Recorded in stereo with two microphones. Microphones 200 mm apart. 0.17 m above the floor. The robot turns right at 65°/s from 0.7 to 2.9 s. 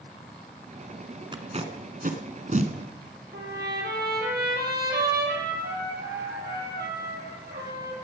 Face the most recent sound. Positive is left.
turn(degrees=-55)  # may be behind; listen again after turning